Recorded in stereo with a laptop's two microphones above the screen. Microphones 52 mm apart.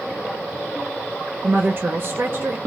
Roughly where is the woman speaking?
Right.